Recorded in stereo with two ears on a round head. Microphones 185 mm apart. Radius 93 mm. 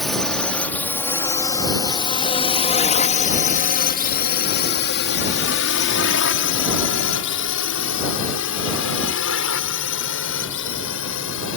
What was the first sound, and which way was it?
A drone, centre (ahead or behind).